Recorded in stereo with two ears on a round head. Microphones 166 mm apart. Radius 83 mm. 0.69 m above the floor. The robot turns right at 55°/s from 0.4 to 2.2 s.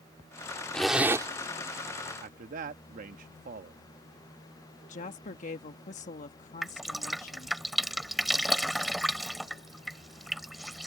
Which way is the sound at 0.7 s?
5° left (ahead or behind).